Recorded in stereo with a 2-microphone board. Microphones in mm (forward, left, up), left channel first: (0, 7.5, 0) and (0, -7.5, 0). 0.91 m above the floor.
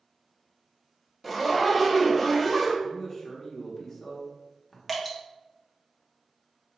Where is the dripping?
20° right (ahead or behind), 0.8 m.